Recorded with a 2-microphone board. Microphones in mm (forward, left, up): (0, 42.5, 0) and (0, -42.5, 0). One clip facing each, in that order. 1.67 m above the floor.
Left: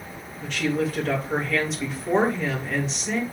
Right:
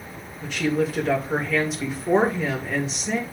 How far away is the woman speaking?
About 2.5 m.